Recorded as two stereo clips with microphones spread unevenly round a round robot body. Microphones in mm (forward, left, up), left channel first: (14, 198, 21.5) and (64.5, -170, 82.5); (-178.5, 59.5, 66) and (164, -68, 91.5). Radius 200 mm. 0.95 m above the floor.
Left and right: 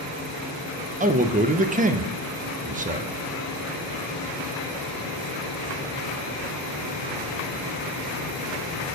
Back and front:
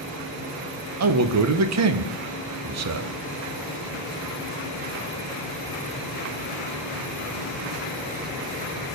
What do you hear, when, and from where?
1.0 s a man speaking: 10° right, 0.7 m